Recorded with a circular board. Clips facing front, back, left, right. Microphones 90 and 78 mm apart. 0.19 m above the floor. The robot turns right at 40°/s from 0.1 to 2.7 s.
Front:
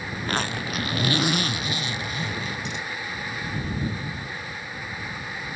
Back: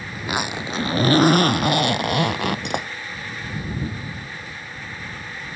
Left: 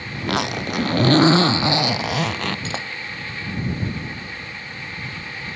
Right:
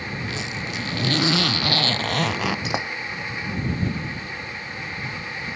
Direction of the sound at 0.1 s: 95° left.